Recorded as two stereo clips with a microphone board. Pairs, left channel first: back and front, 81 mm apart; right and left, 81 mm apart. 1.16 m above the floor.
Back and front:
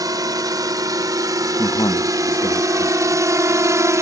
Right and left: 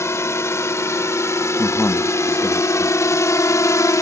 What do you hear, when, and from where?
0.0 s a drone: 35° right; by 4.0 s 45° right
1.6 s a man speaking: 150° right